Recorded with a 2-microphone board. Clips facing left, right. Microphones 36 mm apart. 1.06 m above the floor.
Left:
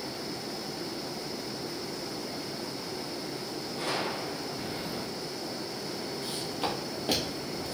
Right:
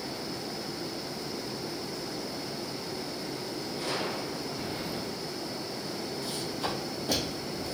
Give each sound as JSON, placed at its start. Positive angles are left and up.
{"t": 3.8, "sound": "a gunshot", "side_deg": 70, "distance_m": 1.9}
{"t": 6.2, "sound": "footsteps", "side_deg": 40, "distance_m": 1.9}